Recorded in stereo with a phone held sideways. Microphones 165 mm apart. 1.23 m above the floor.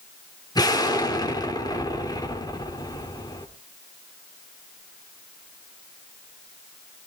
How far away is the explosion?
About 3 m.